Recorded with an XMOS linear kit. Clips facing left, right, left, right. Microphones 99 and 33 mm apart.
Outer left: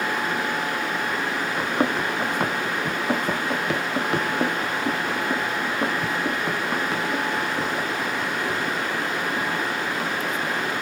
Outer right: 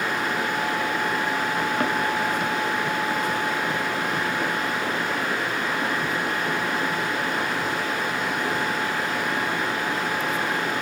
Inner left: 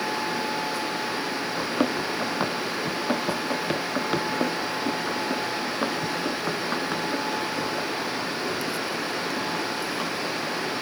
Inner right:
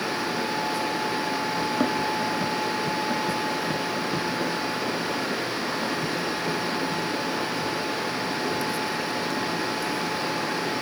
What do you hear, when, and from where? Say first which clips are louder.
1.6 s running footsteps: outer left 3 dB, inner left 1 dB; 15° left (ahead or behind), 0.8 m; by 10.7 s 75° left (ahead or behind), 4.5 m